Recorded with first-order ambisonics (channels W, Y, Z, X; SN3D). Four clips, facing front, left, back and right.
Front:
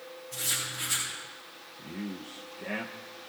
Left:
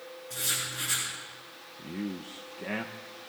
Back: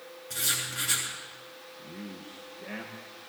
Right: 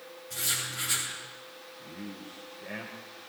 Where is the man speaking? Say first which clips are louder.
Left 7 dB, front 5 dB; 75° left, 0.9 m.